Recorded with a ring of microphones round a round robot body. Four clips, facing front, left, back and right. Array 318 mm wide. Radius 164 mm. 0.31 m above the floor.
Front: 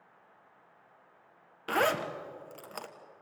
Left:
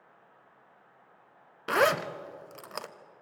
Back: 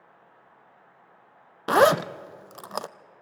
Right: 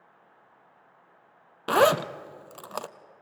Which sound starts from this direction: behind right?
A zipper, at 1.7 s.